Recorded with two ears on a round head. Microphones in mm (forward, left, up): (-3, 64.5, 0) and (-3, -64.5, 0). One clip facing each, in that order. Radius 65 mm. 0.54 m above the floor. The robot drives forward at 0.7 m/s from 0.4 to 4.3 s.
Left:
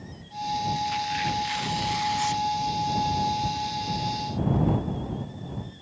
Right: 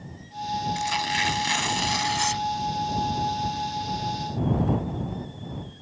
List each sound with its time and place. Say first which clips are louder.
0.8 s tearing paper: even; 80° right; by 2.5 s 65° right (ahead or behind)